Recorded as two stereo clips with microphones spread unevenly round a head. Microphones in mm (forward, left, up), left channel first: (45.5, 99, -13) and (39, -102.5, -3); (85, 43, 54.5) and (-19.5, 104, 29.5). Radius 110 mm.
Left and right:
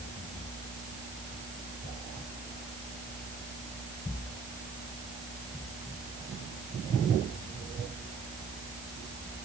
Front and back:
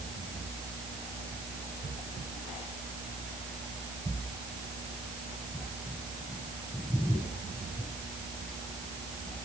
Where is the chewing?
No chewing in this recording.